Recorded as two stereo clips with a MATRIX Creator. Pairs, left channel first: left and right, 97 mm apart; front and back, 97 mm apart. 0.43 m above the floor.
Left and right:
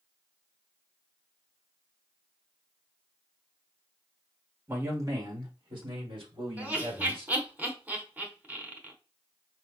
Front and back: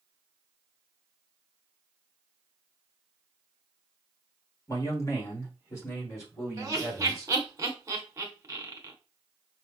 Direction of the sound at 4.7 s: 35° right.